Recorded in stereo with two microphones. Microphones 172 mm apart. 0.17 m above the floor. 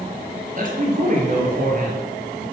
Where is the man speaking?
50° right (ahead or behind), 4 m.